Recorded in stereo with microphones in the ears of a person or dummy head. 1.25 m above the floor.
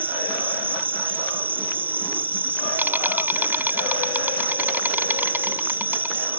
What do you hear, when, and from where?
0.0 s an insect: 10° right (ahead or behind)